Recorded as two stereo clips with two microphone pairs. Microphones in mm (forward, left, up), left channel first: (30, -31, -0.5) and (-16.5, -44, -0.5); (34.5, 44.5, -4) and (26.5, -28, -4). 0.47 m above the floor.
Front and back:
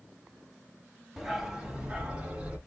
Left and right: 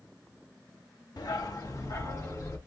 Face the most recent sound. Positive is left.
turn(degrees=125)